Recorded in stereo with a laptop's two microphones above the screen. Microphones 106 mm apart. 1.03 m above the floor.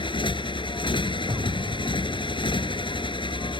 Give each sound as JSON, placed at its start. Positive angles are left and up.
{"t": 0.0, "sound": "a motorcycle", "side_deg": 50}
{"t": 1.3, "sound": "an explosion", "side_deg": -55}